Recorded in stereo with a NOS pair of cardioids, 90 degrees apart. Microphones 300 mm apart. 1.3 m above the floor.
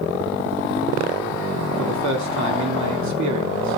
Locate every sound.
1.8 s a man speaking: 65° right, 3 m